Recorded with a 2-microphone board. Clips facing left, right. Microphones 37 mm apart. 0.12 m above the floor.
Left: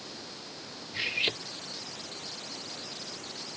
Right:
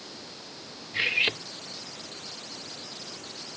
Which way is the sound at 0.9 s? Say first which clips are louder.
Right 5 dB; 30° right (ahead or behind).